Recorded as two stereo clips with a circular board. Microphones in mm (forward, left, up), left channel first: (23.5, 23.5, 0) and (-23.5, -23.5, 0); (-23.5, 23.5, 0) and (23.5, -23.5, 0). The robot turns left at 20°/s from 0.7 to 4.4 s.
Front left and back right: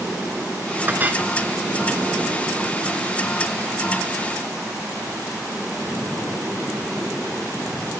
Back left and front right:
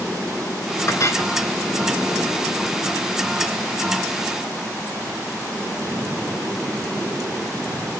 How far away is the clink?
About 1.2 m.